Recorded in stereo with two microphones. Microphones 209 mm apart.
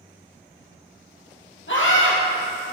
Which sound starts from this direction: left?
A scream, at 1.7 s.